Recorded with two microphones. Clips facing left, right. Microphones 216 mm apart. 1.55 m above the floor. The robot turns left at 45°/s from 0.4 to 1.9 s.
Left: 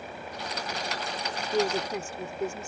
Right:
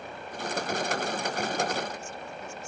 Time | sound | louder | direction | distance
1.5 | a woman speaking | left 4 dB | 75° left (ahead or behind) | ?